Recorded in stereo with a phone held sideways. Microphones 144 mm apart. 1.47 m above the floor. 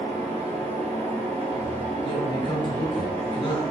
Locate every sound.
0.0 s a fan: 45° right (ahead or behind), 0.9 m
2.0 s a man speaking: 35° left (ahead or behind), 0.9 m